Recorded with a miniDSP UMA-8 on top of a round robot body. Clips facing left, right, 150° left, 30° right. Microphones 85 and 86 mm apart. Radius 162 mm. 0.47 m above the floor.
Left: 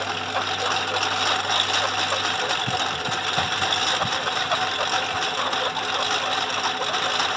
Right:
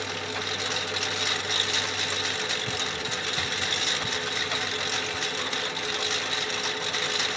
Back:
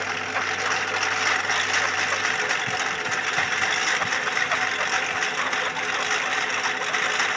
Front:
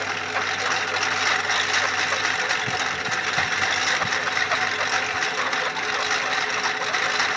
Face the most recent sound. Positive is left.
turn(degrees=55)